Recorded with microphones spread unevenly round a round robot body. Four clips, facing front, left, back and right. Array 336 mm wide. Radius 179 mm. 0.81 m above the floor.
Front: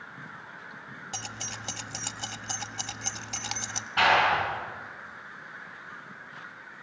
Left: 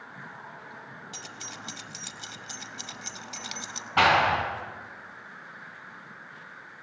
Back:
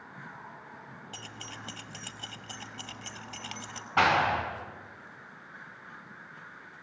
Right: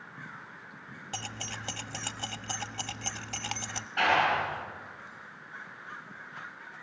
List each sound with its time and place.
1.1 s keys jangling: 55° right, 1.0 m
4.0 s a clap: 110° left, 6.5 m